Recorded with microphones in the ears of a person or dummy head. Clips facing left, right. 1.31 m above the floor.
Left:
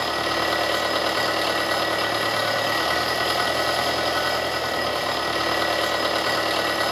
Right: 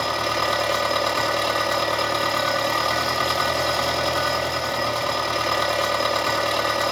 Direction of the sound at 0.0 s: 5° left (ahead or behind).